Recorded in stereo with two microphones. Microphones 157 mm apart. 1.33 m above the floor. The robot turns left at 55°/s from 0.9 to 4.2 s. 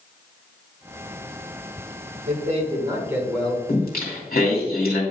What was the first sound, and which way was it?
A man speaking, 120° right.